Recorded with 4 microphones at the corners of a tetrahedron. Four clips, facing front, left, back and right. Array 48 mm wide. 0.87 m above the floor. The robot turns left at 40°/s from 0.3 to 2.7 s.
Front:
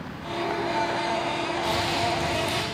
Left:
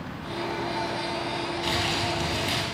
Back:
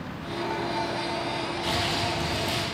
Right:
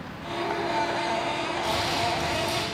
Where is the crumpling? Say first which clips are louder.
Even, front 1 dB; 110° left, 6.5 m; by 2.6 s 70° left, 6.5 m.